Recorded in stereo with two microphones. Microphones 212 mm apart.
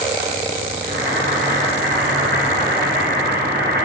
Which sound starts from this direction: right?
Boiling, at 0.8 s.